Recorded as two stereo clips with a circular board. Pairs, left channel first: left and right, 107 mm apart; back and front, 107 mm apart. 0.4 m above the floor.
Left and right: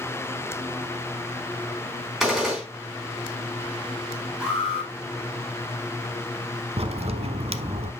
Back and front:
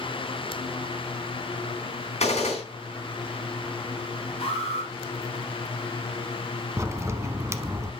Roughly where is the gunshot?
Behind.